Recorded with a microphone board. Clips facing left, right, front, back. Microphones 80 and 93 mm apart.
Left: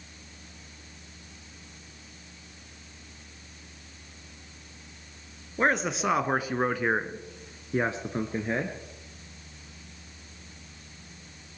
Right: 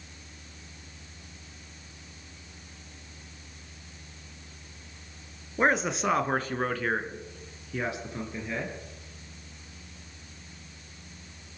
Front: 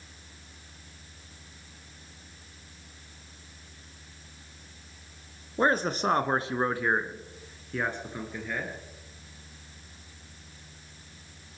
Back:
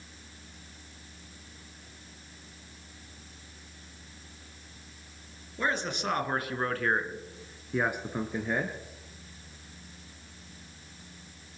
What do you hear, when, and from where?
5.6 s a man speaking: 5° right, 1.6 m; by 8.8 s 125° left, 1.9 m